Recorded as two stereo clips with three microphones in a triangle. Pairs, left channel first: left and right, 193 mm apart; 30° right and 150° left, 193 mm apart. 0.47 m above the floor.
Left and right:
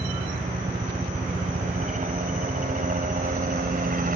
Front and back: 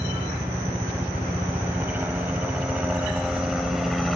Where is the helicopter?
135° right; by 4.2 s 120° right.